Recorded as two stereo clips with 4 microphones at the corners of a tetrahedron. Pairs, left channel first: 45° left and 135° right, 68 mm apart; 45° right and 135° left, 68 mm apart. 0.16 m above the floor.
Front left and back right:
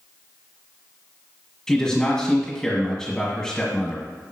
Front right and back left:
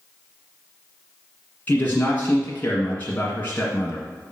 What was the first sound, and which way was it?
A man speaking, 30° right.